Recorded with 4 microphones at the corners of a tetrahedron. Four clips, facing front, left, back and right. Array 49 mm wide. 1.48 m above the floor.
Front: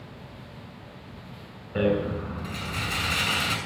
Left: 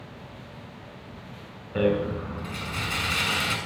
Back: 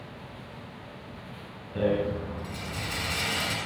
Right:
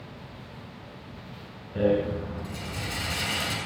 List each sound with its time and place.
1.8 s a rattle: 65° left, 6 m